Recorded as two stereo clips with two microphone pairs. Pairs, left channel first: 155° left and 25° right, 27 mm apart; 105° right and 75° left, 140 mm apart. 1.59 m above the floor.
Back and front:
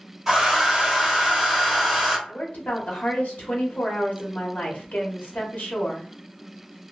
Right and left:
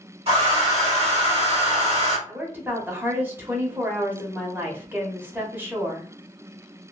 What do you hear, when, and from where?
0.3 s a hair dryer: 50° left, 1.5 m
2.3 s a woman speaking: 150° left, 1.2 m